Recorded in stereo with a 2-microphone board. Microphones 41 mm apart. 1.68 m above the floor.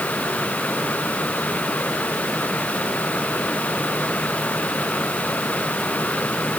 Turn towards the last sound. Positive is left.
No sound to turn to.